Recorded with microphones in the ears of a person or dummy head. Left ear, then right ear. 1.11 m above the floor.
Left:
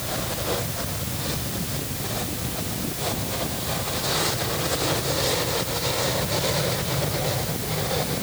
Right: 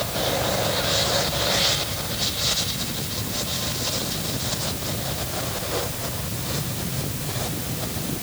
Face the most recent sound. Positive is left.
No sound to turn to.